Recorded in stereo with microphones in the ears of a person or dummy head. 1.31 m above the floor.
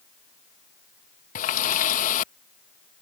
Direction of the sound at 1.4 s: 35° left (ahead or behind).